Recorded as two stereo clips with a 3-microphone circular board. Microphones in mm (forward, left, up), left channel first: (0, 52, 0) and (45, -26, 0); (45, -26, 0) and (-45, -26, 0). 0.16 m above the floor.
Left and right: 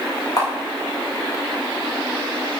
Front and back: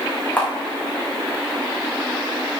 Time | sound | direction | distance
0.4 | a camera shutter | 70° left | 6 m